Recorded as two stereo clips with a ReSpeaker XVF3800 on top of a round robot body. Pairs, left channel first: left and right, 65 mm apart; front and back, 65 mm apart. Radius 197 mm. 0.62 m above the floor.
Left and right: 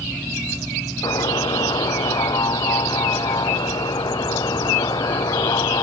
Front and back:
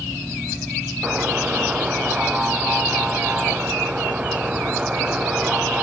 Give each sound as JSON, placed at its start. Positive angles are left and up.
{"t": 1.0, "sound": "a buzzer", "azimuth_deg": 105}